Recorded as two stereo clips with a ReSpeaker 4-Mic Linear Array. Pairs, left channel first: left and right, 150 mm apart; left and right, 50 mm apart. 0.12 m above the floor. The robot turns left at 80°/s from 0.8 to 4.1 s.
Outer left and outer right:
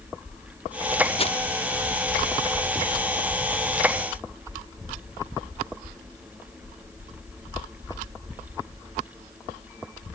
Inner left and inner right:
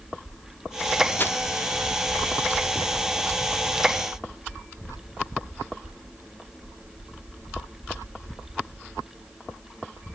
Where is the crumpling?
40° left (ahead or behind), 1.2 m; by 1.4 s 50° left (ahead or behind), 1.2 m.